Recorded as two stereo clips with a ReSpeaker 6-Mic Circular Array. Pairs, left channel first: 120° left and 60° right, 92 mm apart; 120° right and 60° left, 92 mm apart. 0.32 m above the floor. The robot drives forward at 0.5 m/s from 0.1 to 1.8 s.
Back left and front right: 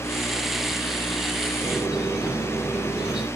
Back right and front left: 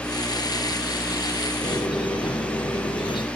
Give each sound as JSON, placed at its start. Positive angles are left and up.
{"t": 1.6, "sound": "a squeak", "azimuth_deg": -145, "distance_m": 4.0}